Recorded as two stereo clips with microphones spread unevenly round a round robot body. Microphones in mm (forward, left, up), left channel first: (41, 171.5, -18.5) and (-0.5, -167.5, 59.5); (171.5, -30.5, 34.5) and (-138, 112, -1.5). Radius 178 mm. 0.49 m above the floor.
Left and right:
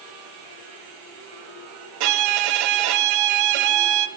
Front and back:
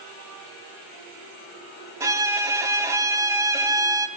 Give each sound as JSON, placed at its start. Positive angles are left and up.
{"t": 2.0, "sound": "a violin", "azimuth_deg": -125, "distance_m": 1.3}